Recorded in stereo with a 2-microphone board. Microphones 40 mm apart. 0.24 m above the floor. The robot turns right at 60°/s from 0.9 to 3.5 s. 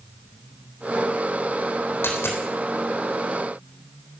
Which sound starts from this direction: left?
A dropped coin, at 2.0 s.